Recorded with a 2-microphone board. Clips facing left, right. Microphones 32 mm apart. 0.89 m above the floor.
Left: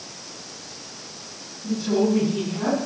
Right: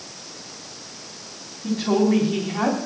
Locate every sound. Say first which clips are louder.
1.6 s a woman speaking: right 2 dB; 85° right, 5.5 m